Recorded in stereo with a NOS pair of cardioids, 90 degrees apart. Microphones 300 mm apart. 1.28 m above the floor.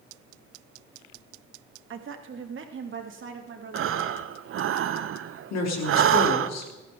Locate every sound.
1.9 s a woman speaking: 45° right, 1.6 m
3.7 s breathing: 50° right, 0.7 m
5.5 s a woman speaking: 70° left, 3 m